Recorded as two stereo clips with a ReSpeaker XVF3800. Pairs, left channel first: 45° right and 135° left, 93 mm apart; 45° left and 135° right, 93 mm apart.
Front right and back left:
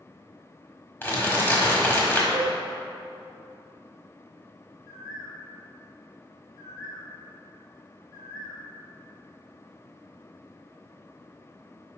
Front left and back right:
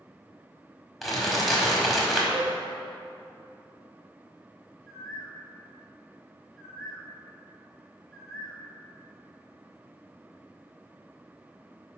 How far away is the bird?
About 1.0 m.